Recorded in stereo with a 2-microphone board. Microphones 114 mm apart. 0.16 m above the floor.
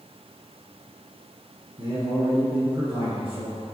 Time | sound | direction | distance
1.8 | a man speaking | 40° right (ahead or behind) | 1.6 m